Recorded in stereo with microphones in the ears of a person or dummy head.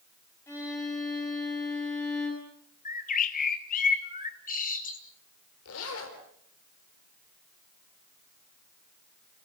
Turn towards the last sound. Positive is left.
turn(degrees=80)